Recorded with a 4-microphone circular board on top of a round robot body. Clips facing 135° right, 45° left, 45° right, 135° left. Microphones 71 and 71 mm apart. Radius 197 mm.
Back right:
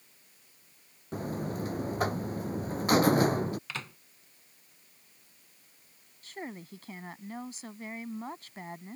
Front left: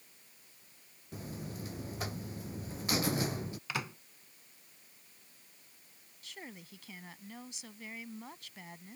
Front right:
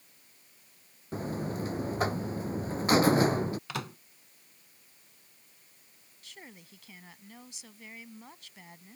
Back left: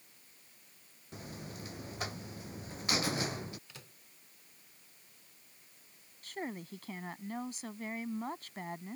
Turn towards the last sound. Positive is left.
turn(degrees=180)